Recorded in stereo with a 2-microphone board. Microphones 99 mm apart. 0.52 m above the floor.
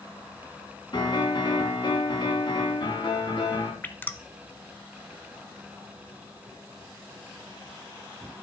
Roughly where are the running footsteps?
I don't hear running footsteps.